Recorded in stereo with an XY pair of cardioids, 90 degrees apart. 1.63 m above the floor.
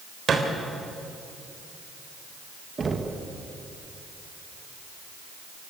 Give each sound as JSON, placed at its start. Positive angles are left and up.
{"t": 0.3, "sound": "a thud", "azimuth_deg": -50, "distance_m": 3.5}
{"t": 2.8, "sound": "knocking", "azimuth_deg": -35, "distance_m": 2.0}